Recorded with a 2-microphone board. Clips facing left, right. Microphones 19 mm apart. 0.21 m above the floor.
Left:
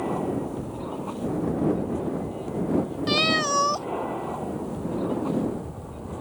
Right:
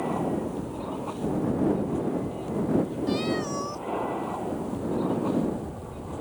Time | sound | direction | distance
0.0 | an aircraft | centre (ahead or behind) | ?
3.1 | a cat meowing | 50° left (ahead or behind) | ?